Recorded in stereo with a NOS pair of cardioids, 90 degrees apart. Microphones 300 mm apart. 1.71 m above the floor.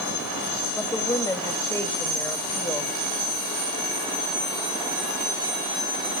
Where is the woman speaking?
15° left, 3 m.